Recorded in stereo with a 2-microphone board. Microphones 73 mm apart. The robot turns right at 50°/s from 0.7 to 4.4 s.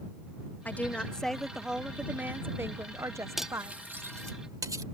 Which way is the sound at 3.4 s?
5° right (ahead or behind).